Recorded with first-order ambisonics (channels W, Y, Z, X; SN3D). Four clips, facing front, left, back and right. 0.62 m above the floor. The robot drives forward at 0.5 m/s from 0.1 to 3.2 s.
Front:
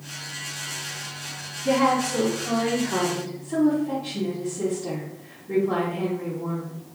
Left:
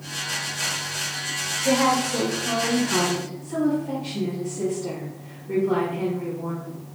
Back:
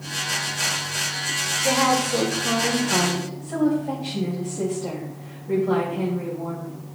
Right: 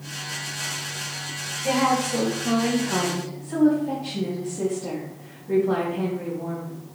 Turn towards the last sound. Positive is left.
turn(degrees=-170)